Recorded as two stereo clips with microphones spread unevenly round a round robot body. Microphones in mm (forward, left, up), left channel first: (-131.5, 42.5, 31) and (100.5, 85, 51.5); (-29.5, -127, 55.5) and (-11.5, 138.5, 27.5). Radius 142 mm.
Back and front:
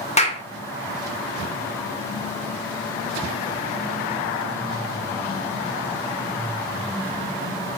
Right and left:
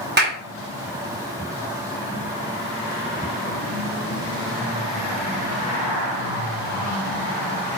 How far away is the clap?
About 2 m.